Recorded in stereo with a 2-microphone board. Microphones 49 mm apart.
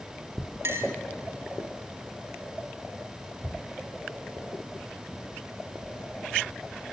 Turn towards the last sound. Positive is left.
turn(degrees=-55)  # may be behind; listen again after turning